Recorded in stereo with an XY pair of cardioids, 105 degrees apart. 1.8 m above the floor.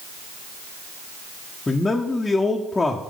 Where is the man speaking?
25° left, 0.7 m.